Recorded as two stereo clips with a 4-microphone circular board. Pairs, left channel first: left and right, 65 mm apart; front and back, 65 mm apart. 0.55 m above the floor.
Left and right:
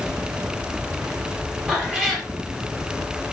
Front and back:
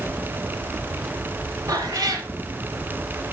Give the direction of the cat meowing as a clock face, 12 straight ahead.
6 o'clock.